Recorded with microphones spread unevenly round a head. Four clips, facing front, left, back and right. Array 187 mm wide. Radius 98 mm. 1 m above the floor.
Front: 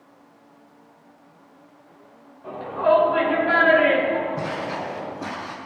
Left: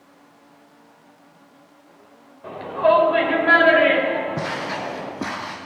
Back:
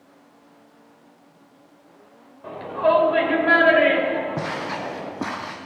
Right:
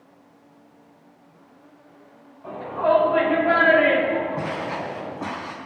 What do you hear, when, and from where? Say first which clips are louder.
2.4 s a shout: left 3 dB, even; 140° left, 4.5 m; by 5.1 s 150° left, 5.5 m
4.4 s footsteps: left 1 dB, even; 130° left, 2 m; by 5.5 s 150° left, 2 m